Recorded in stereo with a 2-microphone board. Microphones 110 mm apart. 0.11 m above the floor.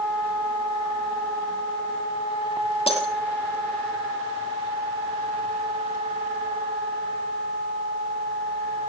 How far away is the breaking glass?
About 2 m.